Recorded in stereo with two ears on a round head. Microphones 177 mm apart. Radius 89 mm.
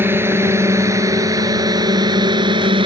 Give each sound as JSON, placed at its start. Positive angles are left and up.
{"t": 0.0, "sound": "a drone", "side_deg": -10}